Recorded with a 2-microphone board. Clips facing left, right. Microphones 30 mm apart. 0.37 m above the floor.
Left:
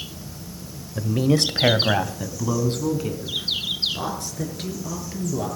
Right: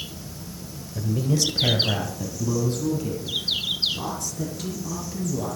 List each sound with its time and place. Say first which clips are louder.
0.9 s a woman speaking: left 4 dB; 45° left (ahead or behind), 1.1 m; by 5.5 s 40° left (ahead or behind), 6.5 m